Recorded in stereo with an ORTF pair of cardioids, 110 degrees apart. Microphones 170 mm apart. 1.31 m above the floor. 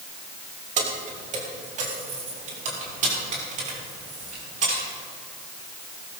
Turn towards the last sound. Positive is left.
turn(degrees=-50)